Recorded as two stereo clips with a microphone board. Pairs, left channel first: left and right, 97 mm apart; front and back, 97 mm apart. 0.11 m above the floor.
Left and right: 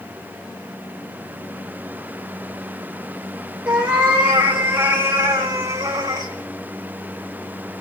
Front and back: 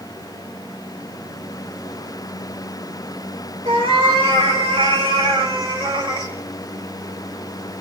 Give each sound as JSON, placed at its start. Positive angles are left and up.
{"t": 3.6, "sound": "a cat meowing", "azimuth_deg": -165, "distance_m": 6.0}